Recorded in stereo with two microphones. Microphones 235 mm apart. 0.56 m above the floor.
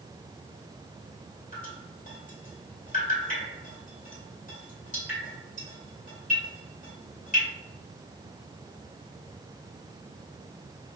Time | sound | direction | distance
1.5 | dripping | 35° left (ahead or behind) | 2.0 m